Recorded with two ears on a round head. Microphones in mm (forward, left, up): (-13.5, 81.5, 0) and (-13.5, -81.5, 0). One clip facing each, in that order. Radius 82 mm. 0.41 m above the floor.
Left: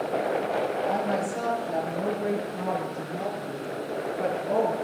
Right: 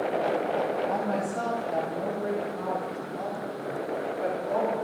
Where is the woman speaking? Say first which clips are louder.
Left 1 dB; 15° left (ahead or behind), 9.5 m; by 4.7 s 55° left (ahead or behind), 7.5 m.